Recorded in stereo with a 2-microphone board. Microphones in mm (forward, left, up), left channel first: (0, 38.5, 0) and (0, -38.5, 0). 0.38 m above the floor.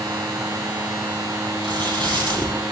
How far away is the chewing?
About 9.5 m.